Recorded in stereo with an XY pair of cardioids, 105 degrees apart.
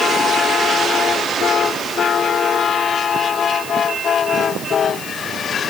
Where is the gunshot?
I don't hear a gunshot.